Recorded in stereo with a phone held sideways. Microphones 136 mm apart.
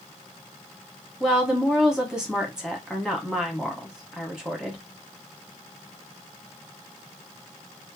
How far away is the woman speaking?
About 1.3 m.